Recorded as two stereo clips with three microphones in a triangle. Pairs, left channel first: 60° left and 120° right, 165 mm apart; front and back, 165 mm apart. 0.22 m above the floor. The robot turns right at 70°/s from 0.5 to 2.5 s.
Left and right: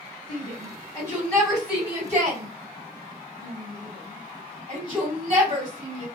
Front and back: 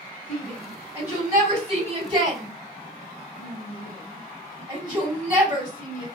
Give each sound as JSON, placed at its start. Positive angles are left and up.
{"t": 0.3, "sound": "a shout", "azimuth_deg": 80, "distance_m": 1.9}